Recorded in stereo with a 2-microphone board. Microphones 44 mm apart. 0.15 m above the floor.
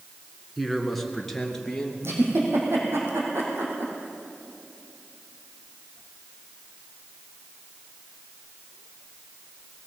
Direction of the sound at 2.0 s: 70° right (ahead or behind).